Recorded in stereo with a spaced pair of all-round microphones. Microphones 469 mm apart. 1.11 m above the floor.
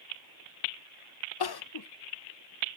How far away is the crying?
About 0.5 m.